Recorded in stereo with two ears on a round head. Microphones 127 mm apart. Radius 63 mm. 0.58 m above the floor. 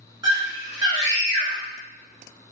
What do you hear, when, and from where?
0.2 s a scream: 30° right (ahead or behind), 1.5 m